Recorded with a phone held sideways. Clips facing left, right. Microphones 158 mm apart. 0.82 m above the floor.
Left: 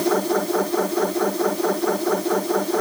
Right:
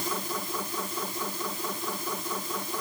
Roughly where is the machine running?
Left.